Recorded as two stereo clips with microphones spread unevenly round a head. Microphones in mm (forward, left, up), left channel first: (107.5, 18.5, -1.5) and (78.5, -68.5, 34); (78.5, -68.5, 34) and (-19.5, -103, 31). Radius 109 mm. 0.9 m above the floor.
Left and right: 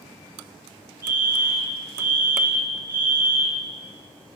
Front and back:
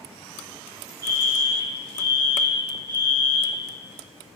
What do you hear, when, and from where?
1.0 s a fire alarm: 170° left, 2.0 m